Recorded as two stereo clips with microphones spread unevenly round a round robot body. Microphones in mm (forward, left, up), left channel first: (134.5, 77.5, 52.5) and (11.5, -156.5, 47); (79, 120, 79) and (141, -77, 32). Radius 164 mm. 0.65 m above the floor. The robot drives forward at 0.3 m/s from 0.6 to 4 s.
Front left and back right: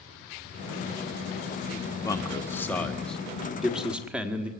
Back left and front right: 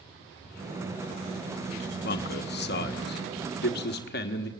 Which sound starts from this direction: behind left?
A man speaking, at 2.0 s.